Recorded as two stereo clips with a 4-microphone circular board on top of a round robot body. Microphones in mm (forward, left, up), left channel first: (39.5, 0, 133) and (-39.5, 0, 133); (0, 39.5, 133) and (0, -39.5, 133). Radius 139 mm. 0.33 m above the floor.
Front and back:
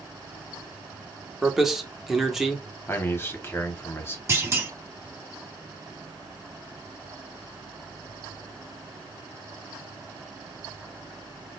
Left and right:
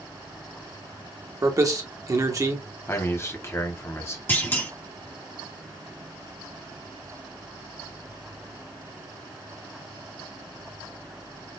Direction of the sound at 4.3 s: 140° left.